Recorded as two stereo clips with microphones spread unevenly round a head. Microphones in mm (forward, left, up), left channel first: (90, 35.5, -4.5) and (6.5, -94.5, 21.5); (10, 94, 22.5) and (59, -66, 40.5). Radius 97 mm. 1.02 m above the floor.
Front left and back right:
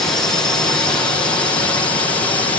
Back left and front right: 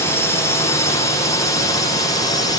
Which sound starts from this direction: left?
A drone, at 0.0 s.